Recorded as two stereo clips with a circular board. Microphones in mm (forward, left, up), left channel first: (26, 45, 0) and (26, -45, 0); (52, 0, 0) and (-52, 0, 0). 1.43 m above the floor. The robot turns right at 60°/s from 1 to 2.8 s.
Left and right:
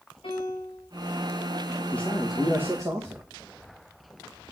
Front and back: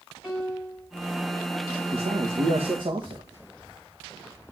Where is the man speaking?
160° left, 1.4 m; by 3.2 s 145° right, 1.4 m.